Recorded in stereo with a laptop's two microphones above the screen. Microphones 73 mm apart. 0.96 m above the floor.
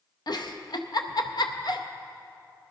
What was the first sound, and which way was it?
A giggle, 60° left (ahead or behind).